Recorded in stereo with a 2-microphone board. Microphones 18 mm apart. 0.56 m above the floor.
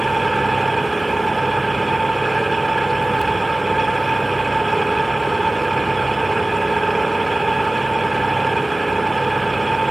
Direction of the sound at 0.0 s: Centre (ahead or behind).